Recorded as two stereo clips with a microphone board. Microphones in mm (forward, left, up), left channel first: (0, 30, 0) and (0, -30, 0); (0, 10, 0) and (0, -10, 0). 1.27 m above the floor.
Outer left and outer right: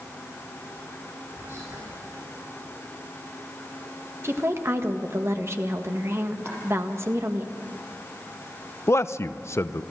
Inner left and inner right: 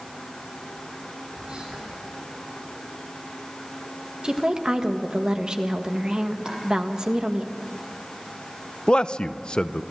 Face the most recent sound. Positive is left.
turn(degrees=50)  # may be behind; listen again after turning